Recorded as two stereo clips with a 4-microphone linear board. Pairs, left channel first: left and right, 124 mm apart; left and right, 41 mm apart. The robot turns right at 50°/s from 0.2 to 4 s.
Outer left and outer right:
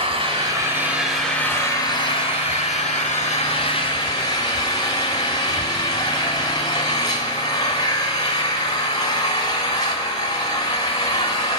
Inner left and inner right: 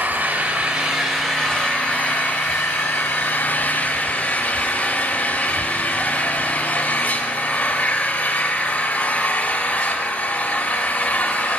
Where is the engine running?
45° right, 2.5 m; by 11.6 s 145° left, 2.5 m.